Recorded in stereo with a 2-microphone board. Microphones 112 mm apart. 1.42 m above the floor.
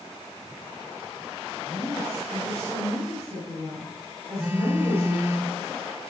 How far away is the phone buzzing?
About 1.2 m.